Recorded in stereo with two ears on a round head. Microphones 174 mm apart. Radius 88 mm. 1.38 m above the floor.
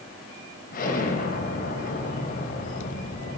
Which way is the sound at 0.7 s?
45° left (ahead or behind).